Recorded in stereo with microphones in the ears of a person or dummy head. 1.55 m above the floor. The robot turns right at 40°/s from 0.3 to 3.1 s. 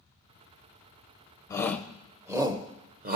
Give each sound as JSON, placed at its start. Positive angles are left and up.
{"t": 1.5, "sound": "a shout", "side_deg": 20, "distance_m": 0.8}